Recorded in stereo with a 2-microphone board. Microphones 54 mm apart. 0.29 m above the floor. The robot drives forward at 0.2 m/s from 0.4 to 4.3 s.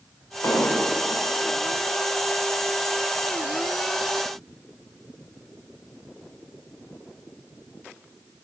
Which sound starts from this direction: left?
An explosion, at 0.4 s.